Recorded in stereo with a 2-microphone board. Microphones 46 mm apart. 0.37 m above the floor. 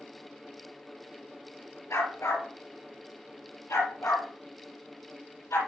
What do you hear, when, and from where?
1.9 s a dog barking: 85° left, 3 m; by 5.6 s 80° left, 5 m